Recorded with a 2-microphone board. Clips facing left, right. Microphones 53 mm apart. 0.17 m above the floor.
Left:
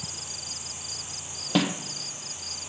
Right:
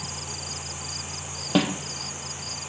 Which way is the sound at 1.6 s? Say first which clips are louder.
Right 2 dB; 10° right (ahead or behind).